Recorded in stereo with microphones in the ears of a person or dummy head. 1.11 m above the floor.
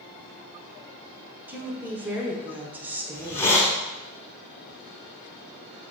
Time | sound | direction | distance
1.5 | a woman speaking | 10° right (ahead or behind) | 0.6 m
3.1 | a hiss | 15° left (ahead or behind) | 0.6 m